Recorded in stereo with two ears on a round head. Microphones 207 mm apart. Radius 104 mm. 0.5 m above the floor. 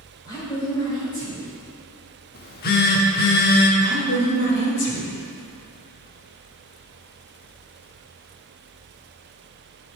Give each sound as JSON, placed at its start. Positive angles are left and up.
{"t": 0.2, "sound": "a woman speaking", "side_deg": 20, "distance_m": 1.9}
{"t": 2.4, "sound": "a phone buzzing", "side_deg": 40, "distance_m": 0.9}
{"t": 3.8, "sound": "a woman speaking", "side_deg": 50, "distance_m": 2.0}